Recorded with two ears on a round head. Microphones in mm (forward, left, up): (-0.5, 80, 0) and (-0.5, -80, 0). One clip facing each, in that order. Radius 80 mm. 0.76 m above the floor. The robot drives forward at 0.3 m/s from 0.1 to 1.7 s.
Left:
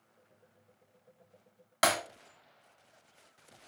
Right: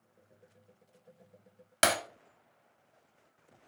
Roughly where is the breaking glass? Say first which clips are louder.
Even; right.